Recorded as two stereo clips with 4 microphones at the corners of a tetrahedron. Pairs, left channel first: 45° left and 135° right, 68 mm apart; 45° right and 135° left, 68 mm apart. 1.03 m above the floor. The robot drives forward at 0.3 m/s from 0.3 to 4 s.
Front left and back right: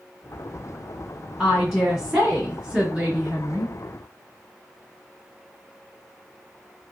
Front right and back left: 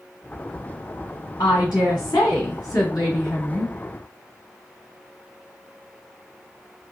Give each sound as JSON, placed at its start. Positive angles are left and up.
{"t": 1.4, "sound": "a woman speaking", "azimuth_deg": -55, "distance_m": 1.8}